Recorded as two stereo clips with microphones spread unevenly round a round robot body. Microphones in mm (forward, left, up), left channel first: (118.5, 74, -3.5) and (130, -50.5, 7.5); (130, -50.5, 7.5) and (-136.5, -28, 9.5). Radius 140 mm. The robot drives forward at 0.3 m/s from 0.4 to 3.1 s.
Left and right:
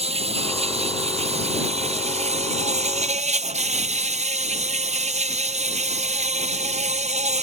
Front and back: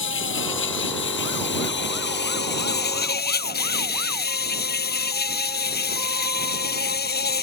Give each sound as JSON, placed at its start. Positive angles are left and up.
{"t": 0.0, "sound": "an insect", "azimuth_deg": -50}